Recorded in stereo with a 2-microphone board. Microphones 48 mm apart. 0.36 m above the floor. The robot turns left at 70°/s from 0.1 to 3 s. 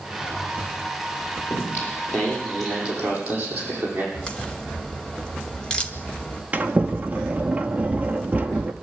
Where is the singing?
75° left, 8.5 m; by 4.0 s 30° right, 8.5 m.